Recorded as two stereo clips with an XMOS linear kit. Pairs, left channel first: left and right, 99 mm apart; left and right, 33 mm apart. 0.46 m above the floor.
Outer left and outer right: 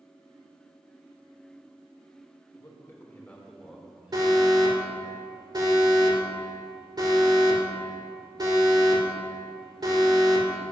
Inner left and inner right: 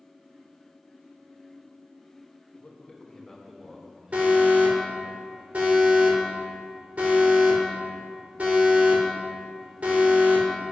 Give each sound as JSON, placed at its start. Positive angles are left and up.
{"t": 2.5, "sound": "a man speaking", "side_deg": 40, "distance_m": 1.5}
{"t": 4.1, "sound": "an alarm", "side_deg": -45, "distance_m": 1.8}